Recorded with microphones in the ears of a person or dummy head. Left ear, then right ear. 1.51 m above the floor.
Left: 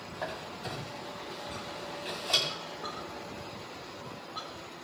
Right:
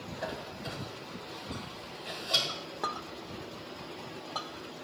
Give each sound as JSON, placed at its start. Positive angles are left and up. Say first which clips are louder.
{"t": 0.1, "sound": "a squeak", "louder": "left 1 dB", "side_deg": 35, "distance_m": 3.0}
{"t": 2.5, "sound": "a clink", "louder": "right 3 dB", "side_deg": -55, "distance_m": 1.5}